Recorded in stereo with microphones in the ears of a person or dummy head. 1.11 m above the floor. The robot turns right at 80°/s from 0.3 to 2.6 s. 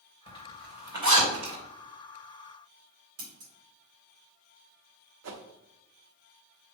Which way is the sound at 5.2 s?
70° right (ahead or behind).